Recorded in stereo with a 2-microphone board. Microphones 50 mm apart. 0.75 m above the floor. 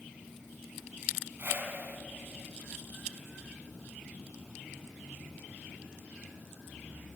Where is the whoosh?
50° right (ahead or behind), 3.5 m.